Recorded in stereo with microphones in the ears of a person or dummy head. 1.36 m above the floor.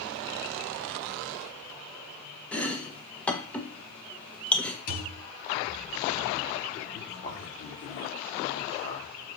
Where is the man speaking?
45° left (ahead or behind), 4 m.